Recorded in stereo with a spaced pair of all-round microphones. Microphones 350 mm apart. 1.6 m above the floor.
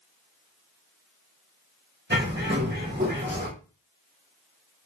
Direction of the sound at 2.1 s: 30° right (ahead or behind).